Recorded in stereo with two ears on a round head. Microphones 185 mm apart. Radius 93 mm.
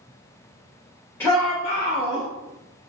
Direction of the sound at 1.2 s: 10° left (ahead or behind).